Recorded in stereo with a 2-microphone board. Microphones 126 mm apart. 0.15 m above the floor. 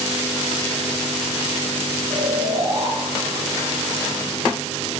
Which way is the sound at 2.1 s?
55° right (ahead or behind).